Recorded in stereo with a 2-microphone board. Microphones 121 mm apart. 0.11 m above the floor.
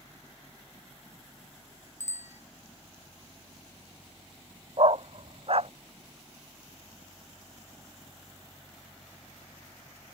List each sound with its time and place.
2.0 s a bicycle bell: 70° left (ahead or behind)
4.8 s a dog barking: 55° right (ahead or behind)